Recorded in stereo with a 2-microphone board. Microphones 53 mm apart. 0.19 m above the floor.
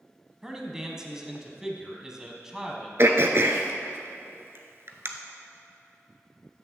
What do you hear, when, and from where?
0.4 s a man speaking: 10° right (ahead or behind), 1.0 m
3.0 s throat clearing: 55° right (ahead or behind), 0.8 m